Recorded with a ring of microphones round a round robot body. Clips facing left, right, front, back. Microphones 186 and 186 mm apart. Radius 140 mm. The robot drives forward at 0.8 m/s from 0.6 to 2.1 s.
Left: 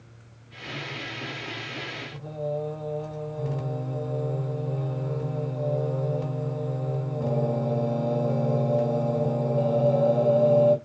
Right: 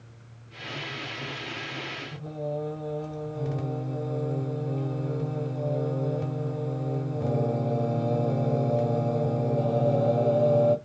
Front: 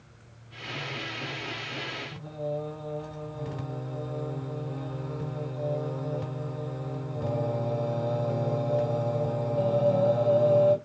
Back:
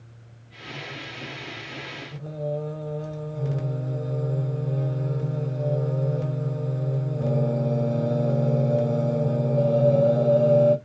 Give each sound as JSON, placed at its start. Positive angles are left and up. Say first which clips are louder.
{"t": 2.1, "sound": "singing", "louder": "left 2 dB, back 4 dB", "azimuth_deg": -175, "distance_m": 1.9}